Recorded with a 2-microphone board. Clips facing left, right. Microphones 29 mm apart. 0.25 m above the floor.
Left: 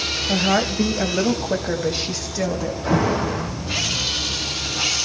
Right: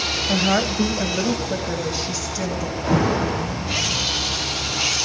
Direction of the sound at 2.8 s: 10° right (ahead or behind).